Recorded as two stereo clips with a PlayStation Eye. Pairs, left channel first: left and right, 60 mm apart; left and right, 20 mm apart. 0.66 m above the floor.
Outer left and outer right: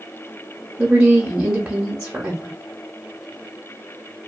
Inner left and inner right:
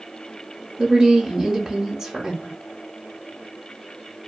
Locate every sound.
0.8 s a woman speaking: 15° right (ahead or behind), 0.7 m